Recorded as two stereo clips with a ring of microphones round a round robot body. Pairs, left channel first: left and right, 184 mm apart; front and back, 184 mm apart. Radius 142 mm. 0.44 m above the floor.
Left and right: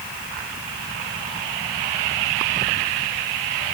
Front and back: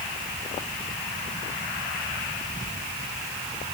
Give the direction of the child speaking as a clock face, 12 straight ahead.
I don't hear a child speaking.